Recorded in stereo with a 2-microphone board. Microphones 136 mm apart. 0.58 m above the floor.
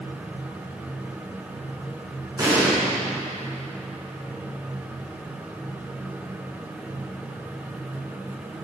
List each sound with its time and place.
2.4 s an explosion: 25° right (ahead or behind), 4 m